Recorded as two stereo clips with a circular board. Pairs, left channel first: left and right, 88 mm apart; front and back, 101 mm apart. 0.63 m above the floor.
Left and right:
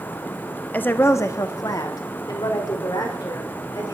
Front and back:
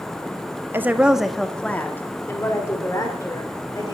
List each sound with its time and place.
0.7 s a woman speaking: 140° left, 0.9 m; by 4.0 s 50° left, 2.5 m